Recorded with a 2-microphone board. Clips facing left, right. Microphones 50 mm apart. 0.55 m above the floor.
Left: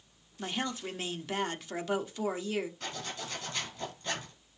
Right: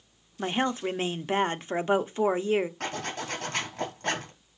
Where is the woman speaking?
35° right (ahead or behind), 0.8 m.